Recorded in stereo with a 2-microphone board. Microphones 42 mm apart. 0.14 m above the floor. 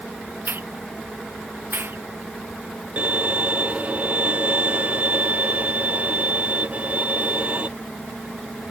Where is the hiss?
60° right (ahead or behind).